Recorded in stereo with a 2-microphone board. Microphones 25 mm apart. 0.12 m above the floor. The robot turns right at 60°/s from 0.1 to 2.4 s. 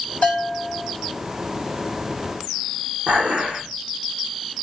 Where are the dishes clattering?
70° right (ahead or behind), 4 m.